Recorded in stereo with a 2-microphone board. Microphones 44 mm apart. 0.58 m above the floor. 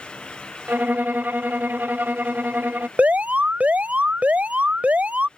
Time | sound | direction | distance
0.7 | a violin | 45° right (ahead or behind) | ?
3.0 | an alarm | 35° right (ahead or behind) | ?